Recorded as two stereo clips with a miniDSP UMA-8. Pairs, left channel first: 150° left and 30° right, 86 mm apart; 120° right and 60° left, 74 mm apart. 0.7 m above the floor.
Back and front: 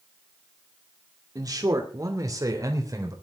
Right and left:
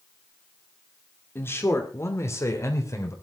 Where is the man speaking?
70° right, 2 m; by 3.1 s 75° right, 3.5 m.